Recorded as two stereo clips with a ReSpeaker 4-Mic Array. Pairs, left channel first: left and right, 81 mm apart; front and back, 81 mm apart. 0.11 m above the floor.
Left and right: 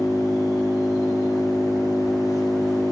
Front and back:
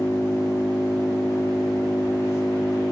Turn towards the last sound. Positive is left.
turn(degrees=55)